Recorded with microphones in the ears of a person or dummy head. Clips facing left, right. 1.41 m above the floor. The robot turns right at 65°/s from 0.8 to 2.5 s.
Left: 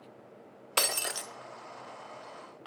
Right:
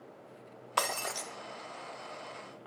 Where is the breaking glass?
135° left, 0.6 m; by 1.3 s 170° left, 0.6 m.